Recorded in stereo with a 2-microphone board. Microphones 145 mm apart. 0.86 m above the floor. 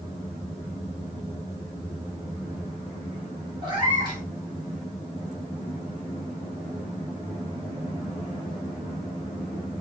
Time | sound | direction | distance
3.6 | a cat meowing | 35° right (ahead or behind) | 1.2 m